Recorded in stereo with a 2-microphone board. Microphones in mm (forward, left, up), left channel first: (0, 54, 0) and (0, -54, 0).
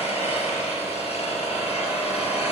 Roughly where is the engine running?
Left.